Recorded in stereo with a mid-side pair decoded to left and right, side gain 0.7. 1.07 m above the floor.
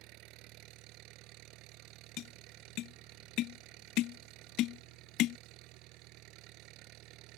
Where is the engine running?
60° right.